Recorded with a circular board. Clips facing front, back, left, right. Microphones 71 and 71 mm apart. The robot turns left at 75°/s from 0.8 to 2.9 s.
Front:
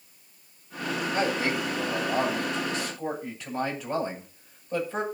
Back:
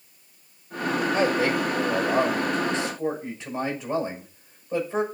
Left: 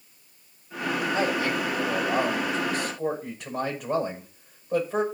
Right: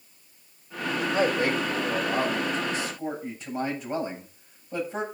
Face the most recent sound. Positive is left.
turn(degrees=115)